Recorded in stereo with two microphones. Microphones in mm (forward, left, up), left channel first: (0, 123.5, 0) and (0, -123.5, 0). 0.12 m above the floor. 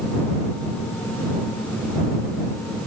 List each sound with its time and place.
Only background noise.